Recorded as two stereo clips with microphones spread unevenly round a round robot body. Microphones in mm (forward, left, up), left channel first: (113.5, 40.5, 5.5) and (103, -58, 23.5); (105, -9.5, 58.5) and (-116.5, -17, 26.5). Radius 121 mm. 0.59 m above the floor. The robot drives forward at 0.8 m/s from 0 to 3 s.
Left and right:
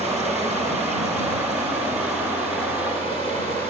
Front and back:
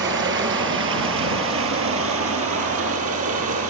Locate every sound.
0.0 s running water: 140° left, 5 m; by 3.7 s 155° left, 7 m